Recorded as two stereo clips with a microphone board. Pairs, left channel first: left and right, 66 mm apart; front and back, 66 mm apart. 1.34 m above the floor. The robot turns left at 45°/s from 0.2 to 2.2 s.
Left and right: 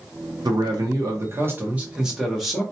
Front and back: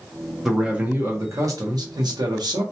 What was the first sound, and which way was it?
A man speaking, 95° right.